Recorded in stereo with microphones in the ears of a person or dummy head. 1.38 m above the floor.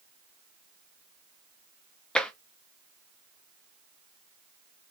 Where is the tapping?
10° left (ahead or behind), 0.6 m.